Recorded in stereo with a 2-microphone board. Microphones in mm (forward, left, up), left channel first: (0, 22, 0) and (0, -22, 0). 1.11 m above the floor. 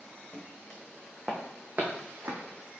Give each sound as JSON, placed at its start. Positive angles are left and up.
{"t": 0.3, "sound": "footsteps", "side_deg": 15, "distance_m": 3.5}